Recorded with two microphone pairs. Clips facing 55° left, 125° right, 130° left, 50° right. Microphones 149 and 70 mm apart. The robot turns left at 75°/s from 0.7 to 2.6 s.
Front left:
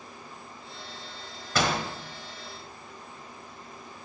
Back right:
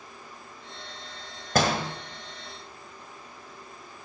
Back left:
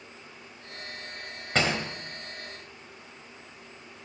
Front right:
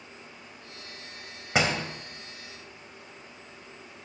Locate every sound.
1.6 s a door slam: 125° right, 1.3 m; by 1.8 s 145° right, 1.3 m